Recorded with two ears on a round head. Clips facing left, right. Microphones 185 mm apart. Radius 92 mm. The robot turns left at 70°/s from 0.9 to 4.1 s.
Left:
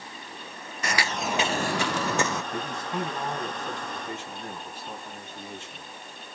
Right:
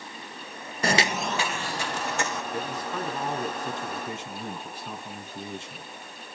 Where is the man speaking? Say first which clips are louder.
Even; 45° left, 4.5 m; by 5.9 s 65° right, 4.5 m.